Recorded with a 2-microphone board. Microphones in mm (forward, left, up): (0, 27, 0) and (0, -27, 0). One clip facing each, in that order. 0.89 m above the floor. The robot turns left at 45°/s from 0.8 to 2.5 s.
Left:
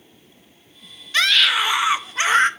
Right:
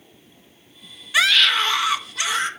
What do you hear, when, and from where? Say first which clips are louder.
1.1 s a scream: even; 170° right, 0.6 m; by 2.5 s 130° left, 0.6 m